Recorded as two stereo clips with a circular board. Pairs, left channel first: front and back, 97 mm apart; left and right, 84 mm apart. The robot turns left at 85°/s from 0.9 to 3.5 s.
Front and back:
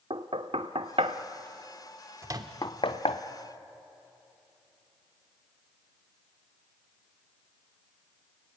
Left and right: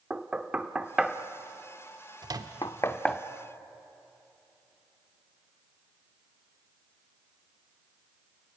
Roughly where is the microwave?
Behind right.